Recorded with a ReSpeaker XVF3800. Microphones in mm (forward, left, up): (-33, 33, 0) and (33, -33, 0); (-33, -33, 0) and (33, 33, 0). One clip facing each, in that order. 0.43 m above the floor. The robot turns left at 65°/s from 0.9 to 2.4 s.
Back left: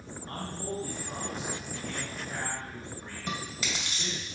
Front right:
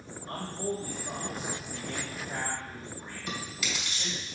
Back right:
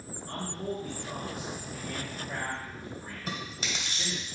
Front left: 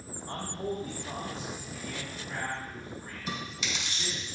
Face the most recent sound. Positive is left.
turn(degrees=-170)